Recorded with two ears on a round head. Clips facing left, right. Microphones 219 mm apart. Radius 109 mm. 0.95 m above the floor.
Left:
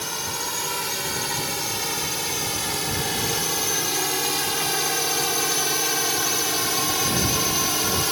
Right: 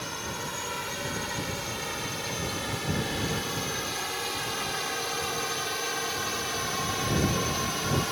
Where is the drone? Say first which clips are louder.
Left 3 dB; 65° left (ahead or behind).